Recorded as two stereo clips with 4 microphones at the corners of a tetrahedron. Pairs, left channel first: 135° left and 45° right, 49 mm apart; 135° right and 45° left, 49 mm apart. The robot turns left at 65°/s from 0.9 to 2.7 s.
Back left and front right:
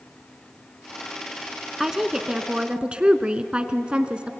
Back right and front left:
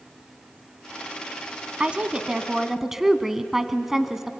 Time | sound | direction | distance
1.8 | a woman speaking | 35° left | 1.1 m